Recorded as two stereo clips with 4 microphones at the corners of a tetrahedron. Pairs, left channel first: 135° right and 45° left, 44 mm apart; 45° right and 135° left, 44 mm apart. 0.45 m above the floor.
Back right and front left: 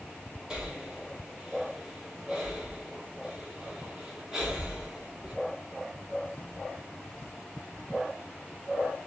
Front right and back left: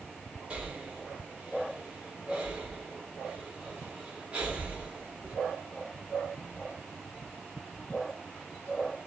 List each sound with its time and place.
0.5 s breathing: 110° left, 0.8 m